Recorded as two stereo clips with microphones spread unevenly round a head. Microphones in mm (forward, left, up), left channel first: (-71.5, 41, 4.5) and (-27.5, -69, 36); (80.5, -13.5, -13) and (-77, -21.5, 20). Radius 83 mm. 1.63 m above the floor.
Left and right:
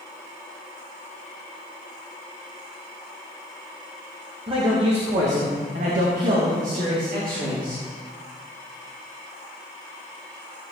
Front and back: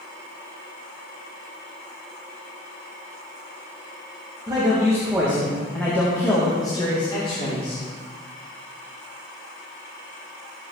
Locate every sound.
4.5 s a man speaking: 110° right, 2 m; by 7.8 s 50° right, 3 m